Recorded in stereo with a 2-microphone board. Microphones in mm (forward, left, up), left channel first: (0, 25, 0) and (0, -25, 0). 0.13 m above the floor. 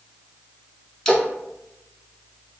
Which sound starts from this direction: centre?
A splash, at 1.1 s.